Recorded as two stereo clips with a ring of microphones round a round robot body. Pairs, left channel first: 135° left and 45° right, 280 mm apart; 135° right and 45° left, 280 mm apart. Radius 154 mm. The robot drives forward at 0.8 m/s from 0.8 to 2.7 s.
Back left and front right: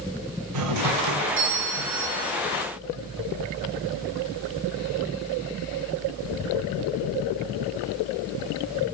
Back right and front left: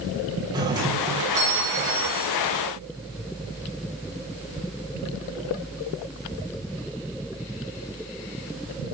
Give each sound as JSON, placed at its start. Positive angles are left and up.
{"t": 0.5, "sound": "a doorbell", "azimuth_deg": -30, "distance_m": 5.0}